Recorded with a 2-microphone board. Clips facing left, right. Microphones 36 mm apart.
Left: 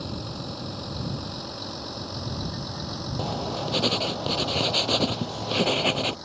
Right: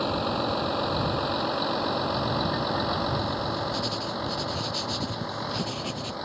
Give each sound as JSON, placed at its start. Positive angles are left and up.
{"t": 0.0, "sound": "a vehicle", "side_deg": -45}
{"t": 3.2, "sound": "writing", "side_deg": 50}